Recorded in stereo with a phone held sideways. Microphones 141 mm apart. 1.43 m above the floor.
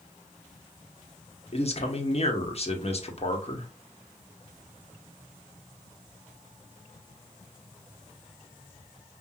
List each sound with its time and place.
1.5 s a man speaking: 45° left (ahead or behind), 1.1 m